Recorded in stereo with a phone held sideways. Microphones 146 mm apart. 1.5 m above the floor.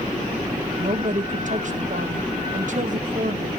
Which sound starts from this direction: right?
A woman speaking, at 0.8 s.